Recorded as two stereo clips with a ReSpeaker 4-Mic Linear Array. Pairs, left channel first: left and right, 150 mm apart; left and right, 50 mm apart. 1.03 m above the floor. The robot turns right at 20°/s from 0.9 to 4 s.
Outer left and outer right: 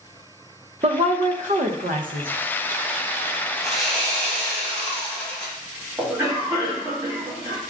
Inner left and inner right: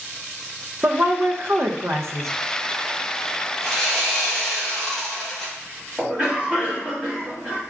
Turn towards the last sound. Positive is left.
turn(degrees=-20)  # may be behind; listen again after turning